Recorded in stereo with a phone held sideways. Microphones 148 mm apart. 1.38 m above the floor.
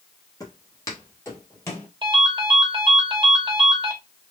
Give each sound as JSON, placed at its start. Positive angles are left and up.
{"t": 0.4, "sound": "footsteps", "side_deg": 25, "distance_m": 1.6}
{"t": 2.0, "sound": "a ringtone", "side_deg": -35, "distance_m": 1.5}